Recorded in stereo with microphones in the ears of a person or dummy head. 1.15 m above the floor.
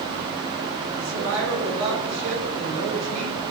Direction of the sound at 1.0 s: 80° right.